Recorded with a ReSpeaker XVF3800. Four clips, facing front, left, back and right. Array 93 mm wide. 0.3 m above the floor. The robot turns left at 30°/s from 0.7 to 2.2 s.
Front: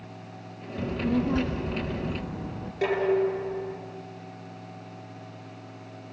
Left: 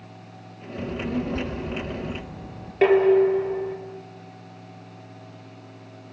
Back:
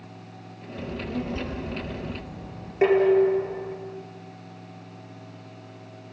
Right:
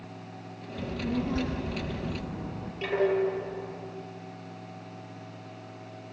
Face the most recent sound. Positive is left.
turn(degrees=115)